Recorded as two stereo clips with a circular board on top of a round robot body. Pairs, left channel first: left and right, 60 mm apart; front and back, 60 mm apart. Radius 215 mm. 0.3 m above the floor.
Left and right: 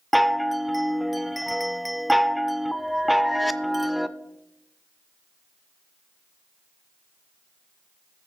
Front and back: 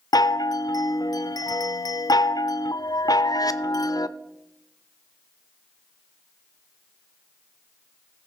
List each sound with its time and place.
0.1 s a chime: straight ahead, 0.5 m